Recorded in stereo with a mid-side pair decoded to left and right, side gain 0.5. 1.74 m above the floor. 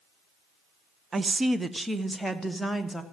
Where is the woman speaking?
35° right, 0.8 m; by 3.0 s 5° left, 2 m.